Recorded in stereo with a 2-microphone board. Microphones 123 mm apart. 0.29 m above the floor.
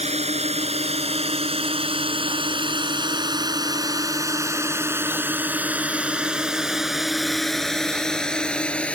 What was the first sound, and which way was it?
A drone, 70° right (ahead or behind).